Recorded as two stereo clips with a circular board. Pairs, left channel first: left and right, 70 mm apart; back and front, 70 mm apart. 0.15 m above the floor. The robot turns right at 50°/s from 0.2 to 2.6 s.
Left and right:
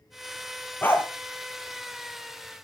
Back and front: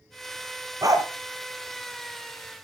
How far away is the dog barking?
About 1.2 m.